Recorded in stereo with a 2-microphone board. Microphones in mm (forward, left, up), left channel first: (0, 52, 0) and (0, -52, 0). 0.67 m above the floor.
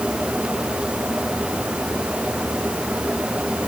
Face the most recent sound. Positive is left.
No sound to turn to.